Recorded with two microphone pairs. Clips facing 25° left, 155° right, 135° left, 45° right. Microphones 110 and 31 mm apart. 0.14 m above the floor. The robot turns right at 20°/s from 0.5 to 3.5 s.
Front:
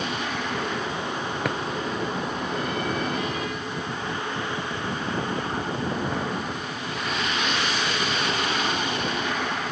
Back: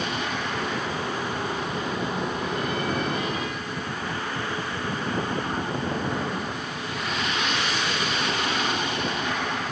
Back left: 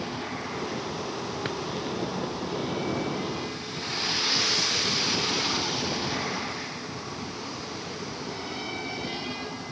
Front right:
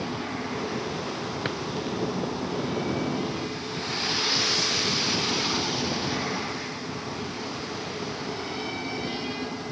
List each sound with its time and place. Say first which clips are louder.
1.4 s a drawer: front 2 dB, front right 2 dB; 40° left; by 1.6 s 45° left